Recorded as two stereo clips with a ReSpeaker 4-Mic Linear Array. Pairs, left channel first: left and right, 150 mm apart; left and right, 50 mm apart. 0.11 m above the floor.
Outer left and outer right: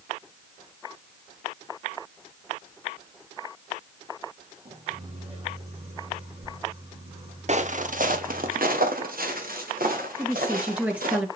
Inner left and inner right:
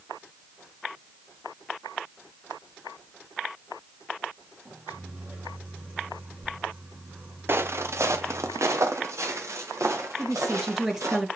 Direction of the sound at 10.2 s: 10° right (ahead or behind).